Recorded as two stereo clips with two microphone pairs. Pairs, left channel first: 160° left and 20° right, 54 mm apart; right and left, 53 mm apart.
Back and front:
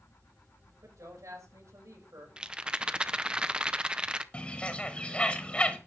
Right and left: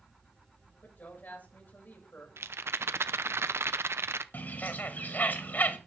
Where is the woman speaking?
35° right, 7.5 m.